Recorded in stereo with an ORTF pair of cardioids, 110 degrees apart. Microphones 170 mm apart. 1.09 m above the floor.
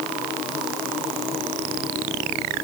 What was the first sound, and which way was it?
Only background noise.